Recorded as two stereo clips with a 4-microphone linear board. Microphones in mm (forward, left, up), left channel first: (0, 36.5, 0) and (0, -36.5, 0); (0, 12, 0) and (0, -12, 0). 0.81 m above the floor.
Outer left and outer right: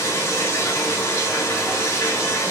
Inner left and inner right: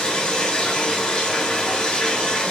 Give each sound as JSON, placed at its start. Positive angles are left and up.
{"t": 0.0, "sound": "running water", "side_deg": 40, "distance_m": 3.0}